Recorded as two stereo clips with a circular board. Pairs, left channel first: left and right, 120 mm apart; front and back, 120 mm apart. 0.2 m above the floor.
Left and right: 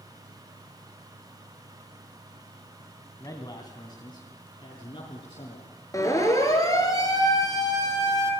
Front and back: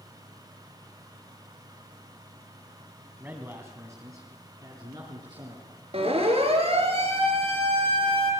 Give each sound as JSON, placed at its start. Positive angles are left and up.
{"t": 3.2, "sound": "a man speaking", "azimuth_deg": 115, "distance_m": 1.7}
{"t": 5.9, "sound": "a siren", "azimuth_deg": 150, "distance_m": 4.0}